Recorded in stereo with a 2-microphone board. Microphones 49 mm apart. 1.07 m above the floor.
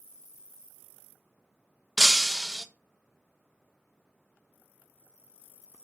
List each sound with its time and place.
2.0 s breaking glass: centre (ahead or behind), 0.6 m